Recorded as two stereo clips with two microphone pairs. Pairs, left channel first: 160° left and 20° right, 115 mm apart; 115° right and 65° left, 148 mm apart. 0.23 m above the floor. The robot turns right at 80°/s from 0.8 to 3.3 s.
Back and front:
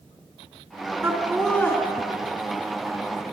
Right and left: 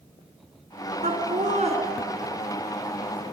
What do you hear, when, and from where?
1.0 s laughter: 45° left, 2.5 m; by 1.8 s 100° left, 2.5 m